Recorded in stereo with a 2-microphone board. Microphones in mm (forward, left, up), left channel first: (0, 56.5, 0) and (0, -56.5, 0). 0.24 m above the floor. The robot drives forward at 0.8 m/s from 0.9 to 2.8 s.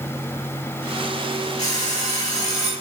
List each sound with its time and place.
1.6 s an alarm clock: 80° left, 4 m